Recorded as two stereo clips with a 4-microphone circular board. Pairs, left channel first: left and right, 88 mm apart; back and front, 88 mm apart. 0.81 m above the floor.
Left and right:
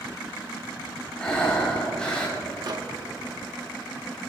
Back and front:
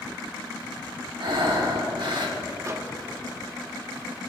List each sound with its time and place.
1.2 s breathing: 10° left, 3.5 m
2.6 s a microwave: 55° right, 1.0 m